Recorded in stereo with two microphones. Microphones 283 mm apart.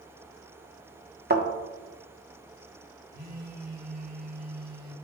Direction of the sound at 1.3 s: 35° right (ahead or behind).